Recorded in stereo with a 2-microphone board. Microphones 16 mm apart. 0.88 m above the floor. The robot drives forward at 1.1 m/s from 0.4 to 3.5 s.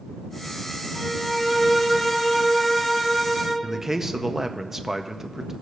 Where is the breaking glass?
I don't hear breaking glass.